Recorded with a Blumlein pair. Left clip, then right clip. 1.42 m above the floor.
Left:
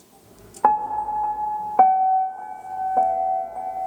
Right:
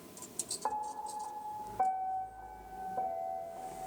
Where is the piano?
45° left, 0.6 m.